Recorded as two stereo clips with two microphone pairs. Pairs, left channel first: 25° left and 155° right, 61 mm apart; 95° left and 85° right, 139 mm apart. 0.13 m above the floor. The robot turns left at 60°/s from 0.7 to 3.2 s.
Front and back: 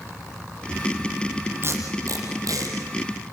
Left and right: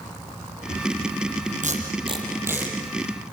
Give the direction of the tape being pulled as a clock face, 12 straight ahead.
4 o'clock.